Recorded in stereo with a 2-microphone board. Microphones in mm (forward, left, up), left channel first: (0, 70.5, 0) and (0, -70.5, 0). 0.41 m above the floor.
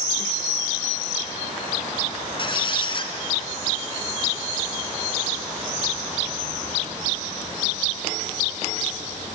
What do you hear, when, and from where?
2.4 s a squeak: 35° left (ahead or behind), 1.8 m